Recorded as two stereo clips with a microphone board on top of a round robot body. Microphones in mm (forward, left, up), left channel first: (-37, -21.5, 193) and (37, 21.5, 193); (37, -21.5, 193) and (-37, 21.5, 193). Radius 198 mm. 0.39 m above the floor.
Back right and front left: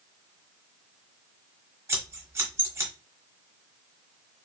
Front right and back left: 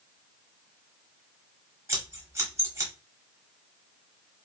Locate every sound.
1.9 s scissors: 95° left, 1.2 m